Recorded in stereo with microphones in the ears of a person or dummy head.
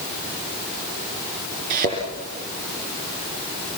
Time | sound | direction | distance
1.7 | a thud | 45° right (ahead or behind) | 6 m